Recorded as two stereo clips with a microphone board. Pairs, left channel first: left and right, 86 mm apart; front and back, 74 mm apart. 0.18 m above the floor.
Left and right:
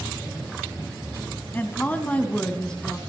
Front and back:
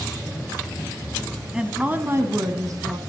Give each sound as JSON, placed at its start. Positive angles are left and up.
{"t": 1.5, "sound": "a woman speaking", "azimuth_deg": 115, "distance_m": 1.0}